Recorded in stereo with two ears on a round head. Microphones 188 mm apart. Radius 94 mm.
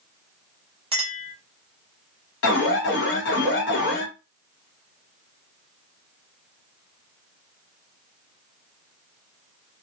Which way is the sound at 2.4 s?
55° left (ahead or behind).